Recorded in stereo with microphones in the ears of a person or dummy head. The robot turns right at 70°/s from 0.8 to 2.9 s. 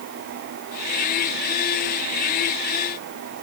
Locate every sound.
Only background noise.